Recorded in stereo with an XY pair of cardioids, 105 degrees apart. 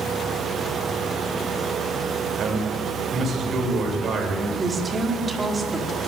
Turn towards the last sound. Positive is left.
turn(degrees=-25)